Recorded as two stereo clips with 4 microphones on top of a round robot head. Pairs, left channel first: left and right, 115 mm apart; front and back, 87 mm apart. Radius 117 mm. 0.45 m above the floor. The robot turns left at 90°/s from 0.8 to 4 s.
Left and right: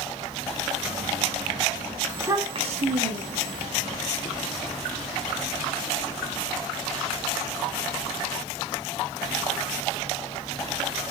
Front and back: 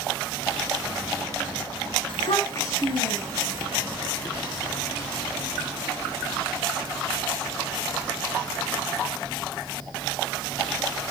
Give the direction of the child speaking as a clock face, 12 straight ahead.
12 o'clock.